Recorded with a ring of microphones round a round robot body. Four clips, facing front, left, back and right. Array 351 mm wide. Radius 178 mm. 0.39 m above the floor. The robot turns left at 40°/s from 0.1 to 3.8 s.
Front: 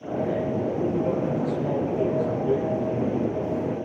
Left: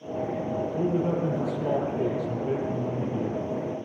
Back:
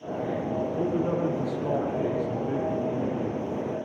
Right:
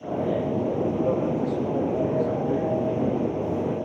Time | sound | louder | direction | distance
0.7 | a man speaking | left 1 dB, even | 130° left | 9.5 m